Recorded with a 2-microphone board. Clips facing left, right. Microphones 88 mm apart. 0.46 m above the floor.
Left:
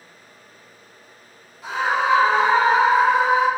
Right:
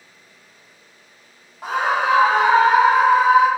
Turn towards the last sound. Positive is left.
turn(degrees=-65)  # may be behind; listen again after turning